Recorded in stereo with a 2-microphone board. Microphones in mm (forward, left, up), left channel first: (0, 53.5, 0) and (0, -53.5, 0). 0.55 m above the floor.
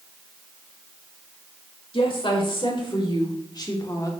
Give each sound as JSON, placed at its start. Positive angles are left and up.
{"t": 1.9, "sound": "a woman speaking", "side_deg": 55, "distance_m": 2.0}